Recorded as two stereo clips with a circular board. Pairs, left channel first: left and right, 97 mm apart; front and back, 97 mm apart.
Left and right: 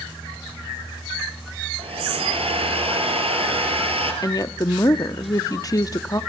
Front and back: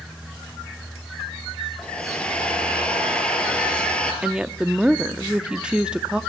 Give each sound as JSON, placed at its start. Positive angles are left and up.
{"t": 1.8, "sound": "a hair dryer", "azimuth_deg": -80, "distance_m": 4.0}
{"t": 4.2, "sound": "a woman speaking", "azimuth_deg": 105, "distance_m": 0.8}